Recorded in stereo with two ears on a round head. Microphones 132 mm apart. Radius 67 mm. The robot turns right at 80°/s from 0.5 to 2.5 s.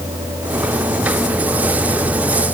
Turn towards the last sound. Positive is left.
No sound to turn to.